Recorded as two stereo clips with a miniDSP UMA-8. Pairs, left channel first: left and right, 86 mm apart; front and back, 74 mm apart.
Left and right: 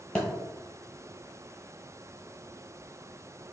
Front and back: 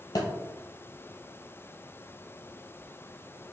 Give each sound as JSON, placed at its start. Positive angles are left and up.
{"t": 0.1, "sound": "a thud", "azimuth_deg": 10, "distance_m": 0.8}